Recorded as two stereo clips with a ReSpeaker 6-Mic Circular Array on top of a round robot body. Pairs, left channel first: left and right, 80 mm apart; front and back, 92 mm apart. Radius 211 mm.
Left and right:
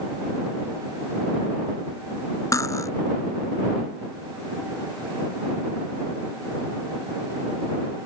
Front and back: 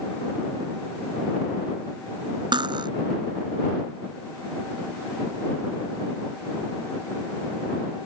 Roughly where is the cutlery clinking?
Behind left.